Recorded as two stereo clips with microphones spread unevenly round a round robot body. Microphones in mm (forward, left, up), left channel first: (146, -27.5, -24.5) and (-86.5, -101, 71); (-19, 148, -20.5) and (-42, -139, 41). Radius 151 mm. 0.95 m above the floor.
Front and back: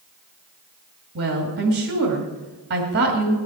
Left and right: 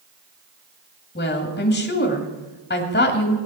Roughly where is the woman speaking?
Behind left.